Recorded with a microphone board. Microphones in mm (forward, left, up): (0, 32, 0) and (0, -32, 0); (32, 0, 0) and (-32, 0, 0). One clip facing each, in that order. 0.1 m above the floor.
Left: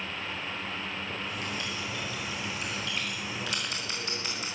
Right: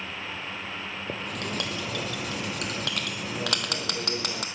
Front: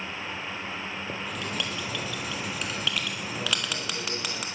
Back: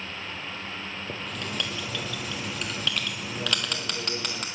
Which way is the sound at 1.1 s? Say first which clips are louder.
Right 2 dB, even; 90° right.